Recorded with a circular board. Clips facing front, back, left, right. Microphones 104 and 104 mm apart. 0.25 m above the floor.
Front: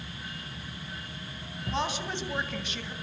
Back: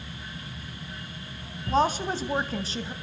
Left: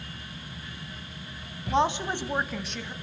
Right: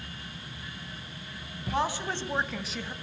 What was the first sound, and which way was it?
A woman speaking, 145° left.